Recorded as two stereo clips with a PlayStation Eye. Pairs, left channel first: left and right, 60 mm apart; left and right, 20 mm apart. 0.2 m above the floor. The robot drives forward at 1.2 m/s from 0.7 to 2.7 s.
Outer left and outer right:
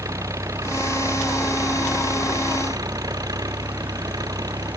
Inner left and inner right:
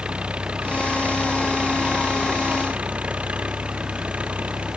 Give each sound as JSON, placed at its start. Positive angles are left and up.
{"t": 0.0, "sound": "an engine running", "side_deg": -60}